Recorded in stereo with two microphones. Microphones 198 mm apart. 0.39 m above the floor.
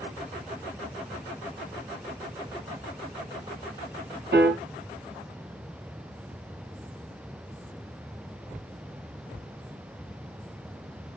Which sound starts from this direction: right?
A piano, at 4.3 s.